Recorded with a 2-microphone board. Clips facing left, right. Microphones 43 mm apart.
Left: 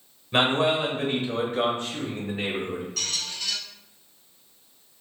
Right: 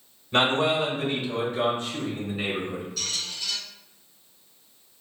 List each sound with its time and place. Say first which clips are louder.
0.3 s a man speaking: even; 10° left (ahead or behind), 1.0 m; by 2.9 s 60° left (ahead or behind), 2.0 m
3.0 s a squeak: left 1 dB; 70° left (ahead or behind), 1.1 m